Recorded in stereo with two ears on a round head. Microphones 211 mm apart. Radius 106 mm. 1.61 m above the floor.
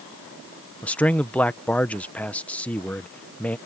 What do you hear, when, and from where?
0.8 s a man speaking: 5° left (ahead or behind)